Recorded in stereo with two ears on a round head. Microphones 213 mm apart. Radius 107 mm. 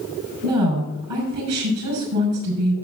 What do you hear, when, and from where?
0.4 s a woman speaking: 85° right, 5.5 m